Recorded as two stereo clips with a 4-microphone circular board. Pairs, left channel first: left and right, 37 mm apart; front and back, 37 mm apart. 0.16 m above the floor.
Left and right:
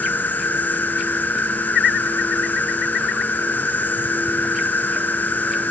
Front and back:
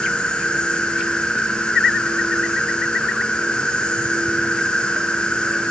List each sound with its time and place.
0.0 s an insect: 60° left, 1.8 m